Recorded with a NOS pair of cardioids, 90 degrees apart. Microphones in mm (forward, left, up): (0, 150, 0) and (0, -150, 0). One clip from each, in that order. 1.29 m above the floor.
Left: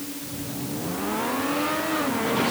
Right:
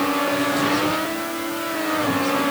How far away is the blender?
I don't hear a blender.